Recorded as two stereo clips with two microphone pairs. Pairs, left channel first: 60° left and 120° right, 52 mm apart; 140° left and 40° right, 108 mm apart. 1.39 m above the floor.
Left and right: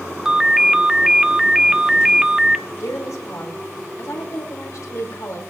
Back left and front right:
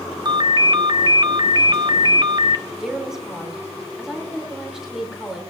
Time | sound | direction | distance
0.2 | a ringtone | 40° right | 0.6 m
2.8 | a woman speaking | 50° left | 4.5 m